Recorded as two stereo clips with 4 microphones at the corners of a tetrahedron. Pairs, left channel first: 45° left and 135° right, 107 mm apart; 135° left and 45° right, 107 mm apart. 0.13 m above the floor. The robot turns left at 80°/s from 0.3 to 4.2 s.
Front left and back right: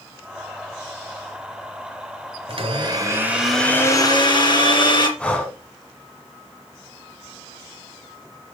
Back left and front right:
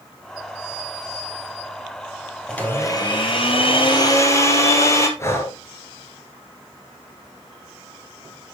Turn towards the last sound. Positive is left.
turn(degrees=115)